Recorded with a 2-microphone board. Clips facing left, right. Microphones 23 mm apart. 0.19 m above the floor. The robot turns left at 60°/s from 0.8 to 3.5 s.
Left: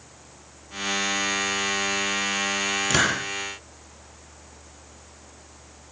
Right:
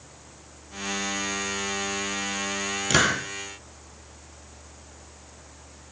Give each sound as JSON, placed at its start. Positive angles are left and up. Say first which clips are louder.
{"t": 2.9, "sound": "a hiss", "louder": "right 2 dB", "side_deg": -5, "distance_m": 4.0}